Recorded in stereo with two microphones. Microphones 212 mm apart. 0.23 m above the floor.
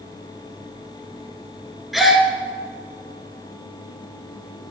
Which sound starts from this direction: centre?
A gasp, at 1.9 s.